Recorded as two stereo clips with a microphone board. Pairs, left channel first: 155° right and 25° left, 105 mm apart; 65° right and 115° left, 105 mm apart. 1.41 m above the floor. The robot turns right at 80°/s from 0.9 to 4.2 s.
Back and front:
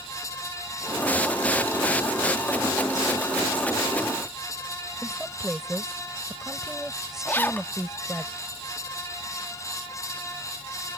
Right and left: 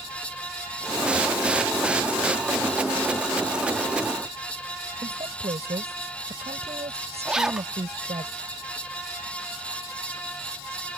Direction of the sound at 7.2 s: 175° right.